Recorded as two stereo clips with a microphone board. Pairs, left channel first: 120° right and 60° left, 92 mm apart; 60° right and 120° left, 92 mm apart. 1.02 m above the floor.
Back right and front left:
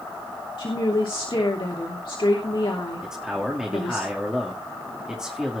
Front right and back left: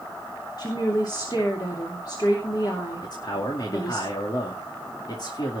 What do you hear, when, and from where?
0.6 s a woman speaking: 100° right, 3 m
3.0 s a man speaking: 25° right, 2.5 m